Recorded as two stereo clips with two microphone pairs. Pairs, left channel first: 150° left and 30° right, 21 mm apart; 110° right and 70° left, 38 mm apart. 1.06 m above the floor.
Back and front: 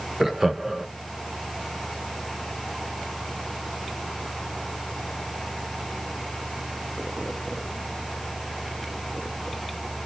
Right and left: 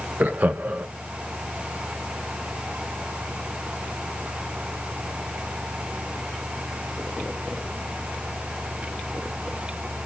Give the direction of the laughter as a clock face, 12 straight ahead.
11 o'clock.